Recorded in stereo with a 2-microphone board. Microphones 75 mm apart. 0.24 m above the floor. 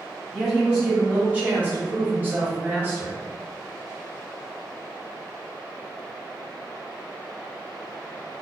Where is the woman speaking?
10° right (ahead or behind), 1.5 m; by 3.2 s 25° right (ahead or behind), 1.6 m.